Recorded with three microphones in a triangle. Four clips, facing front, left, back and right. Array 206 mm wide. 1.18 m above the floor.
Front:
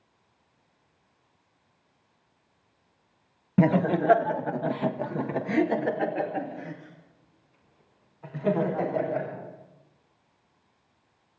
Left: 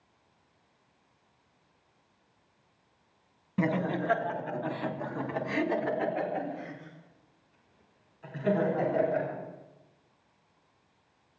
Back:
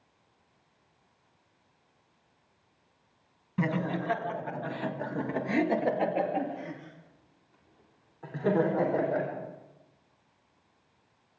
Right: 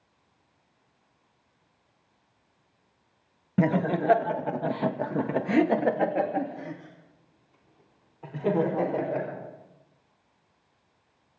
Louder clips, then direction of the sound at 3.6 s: Right 5 dB, front 8 dB; 25° right.